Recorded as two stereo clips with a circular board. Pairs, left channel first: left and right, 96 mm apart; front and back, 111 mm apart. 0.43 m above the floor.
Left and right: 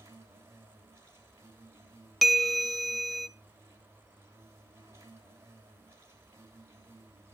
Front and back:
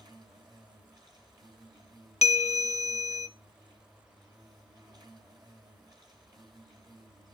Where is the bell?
Straight ahead, 0.6 m.